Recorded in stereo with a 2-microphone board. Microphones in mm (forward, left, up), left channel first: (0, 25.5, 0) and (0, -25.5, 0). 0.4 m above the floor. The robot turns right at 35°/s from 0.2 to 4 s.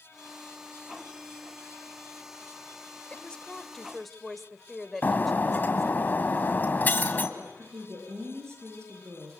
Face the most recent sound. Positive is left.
turn(degrees=-60)  # may be behind; listen again after turning